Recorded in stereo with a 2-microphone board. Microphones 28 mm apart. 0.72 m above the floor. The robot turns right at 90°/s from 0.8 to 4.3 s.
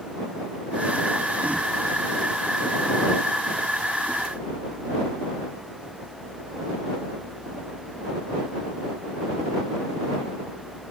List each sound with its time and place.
Only background noise.